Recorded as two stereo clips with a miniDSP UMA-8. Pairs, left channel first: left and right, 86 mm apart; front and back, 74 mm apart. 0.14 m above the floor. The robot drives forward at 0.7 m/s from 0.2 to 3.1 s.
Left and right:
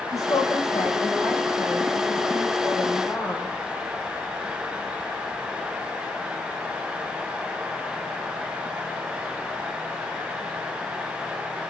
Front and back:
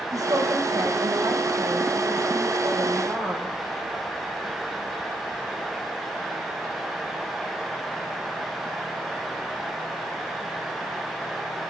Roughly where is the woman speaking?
Behind left.